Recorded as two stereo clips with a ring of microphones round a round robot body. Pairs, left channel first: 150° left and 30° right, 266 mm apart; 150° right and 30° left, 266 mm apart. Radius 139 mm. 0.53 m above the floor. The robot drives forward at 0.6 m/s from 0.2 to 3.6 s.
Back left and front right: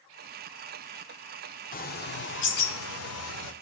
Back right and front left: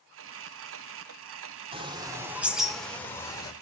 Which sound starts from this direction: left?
A bird, at 1.7 s.